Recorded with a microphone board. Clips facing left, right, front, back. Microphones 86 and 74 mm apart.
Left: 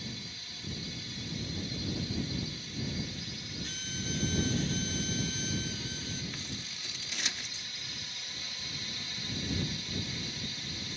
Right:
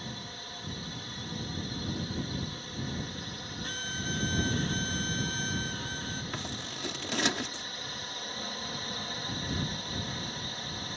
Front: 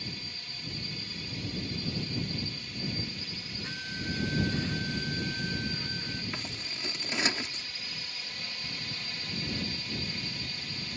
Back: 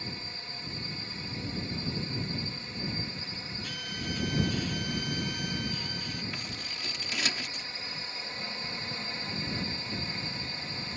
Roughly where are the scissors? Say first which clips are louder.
Right 5 dB, even; ahead right.